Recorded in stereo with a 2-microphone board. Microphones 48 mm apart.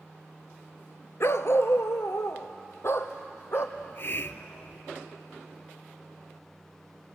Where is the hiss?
55° left (ahead or behind), 0.7 m.